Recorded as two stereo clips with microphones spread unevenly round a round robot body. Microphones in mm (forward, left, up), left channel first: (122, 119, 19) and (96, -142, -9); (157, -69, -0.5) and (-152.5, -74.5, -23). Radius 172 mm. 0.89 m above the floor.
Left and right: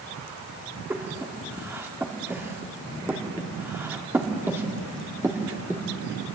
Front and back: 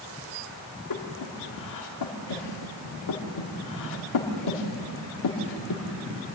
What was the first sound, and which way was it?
Breathing, 15° right.